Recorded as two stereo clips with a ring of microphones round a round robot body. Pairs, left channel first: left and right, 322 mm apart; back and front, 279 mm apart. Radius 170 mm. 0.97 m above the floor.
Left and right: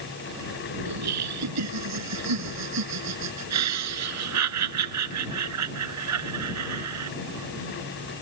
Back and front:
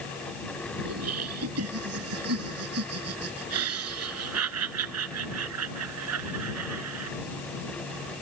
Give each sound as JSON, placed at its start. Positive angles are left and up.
{"t": 0.8, "sound": "laughter", "azimuth_deg": -50}